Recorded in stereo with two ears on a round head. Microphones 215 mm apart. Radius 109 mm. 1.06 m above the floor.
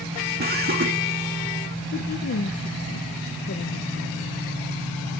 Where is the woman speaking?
50° left (ahead or behind), 0.8 m.